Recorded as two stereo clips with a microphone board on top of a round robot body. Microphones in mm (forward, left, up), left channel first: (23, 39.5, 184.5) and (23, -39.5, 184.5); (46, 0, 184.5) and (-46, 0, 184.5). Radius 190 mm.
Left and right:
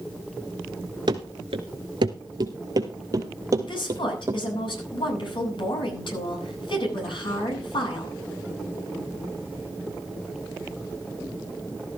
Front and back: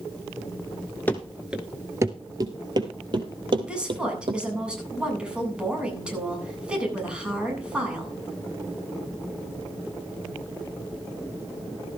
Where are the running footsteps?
70° right, 0.7 m; by 4.4 s 145° right, 2 m.